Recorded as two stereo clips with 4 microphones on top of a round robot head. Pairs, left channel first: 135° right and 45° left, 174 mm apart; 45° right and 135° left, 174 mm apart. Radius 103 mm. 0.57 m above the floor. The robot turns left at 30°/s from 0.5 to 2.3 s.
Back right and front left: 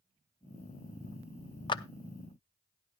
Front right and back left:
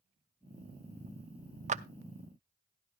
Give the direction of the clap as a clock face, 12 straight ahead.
6 o'clock.